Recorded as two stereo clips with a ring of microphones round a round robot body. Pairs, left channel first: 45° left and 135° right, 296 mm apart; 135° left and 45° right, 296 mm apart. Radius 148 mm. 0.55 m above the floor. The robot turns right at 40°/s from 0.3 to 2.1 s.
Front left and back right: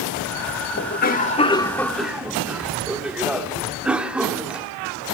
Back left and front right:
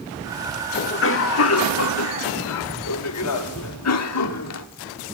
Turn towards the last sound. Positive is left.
turn(degrees=140)